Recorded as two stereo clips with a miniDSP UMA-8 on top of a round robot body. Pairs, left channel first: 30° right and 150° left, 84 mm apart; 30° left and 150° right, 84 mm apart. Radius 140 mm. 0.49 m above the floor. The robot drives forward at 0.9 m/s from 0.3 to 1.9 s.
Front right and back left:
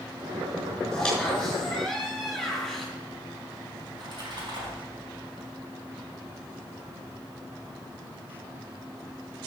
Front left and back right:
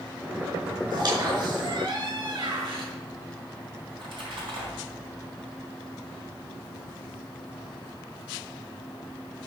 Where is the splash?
170° right, 4 m.